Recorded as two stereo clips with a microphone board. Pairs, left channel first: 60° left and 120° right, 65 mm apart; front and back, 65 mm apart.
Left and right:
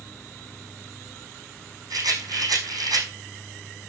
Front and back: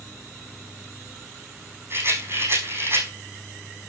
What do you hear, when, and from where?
1.9 s a rattle: 130° right, 5 m